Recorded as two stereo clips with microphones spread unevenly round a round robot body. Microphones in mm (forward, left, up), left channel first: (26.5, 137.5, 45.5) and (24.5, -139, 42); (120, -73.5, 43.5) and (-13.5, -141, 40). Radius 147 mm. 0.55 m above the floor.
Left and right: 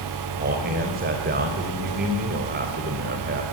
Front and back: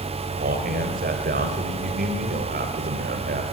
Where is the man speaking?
145° right, 3 m.